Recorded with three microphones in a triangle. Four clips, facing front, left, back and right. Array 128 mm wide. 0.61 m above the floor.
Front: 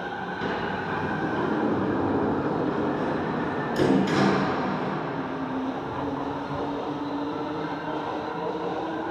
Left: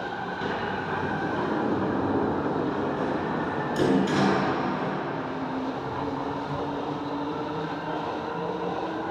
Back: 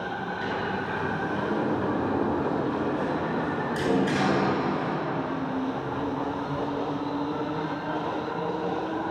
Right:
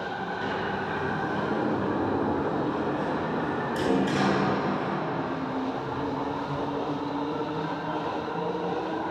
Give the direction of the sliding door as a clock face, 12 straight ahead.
11 o'clock.